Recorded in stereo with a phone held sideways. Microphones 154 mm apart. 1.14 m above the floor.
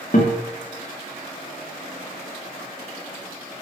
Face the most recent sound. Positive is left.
turn(degrees=60)  # may be behind; listen again after turning